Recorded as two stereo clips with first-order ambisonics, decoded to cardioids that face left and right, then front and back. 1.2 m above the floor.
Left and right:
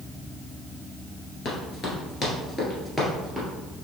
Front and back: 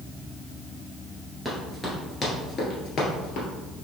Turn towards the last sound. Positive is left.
turn(degrees=0)